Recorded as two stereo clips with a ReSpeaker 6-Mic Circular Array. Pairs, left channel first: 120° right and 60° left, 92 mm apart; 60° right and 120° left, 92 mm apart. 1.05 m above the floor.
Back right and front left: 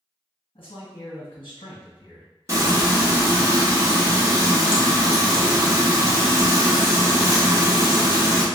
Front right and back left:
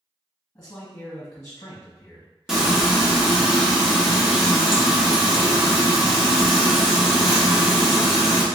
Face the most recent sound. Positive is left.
turn(degrees=45)